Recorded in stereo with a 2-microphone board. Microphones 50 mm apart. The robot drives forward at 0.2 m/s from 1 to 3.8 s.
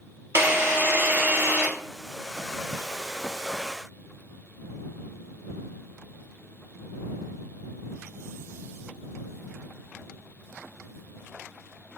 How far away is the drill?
About 1.1 m.